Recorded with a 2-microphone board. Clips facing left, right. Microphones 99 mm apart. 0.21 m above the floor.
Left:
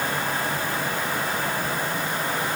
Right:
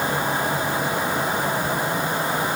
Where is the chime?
No chime in this recording.